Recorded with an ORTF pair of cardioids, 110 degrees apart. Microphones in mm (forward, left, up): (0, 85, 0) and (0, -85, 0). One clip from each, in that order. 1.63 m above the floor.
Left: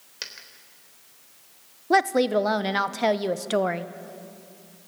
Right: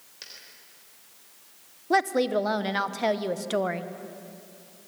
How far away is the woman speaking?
About 1.0 m.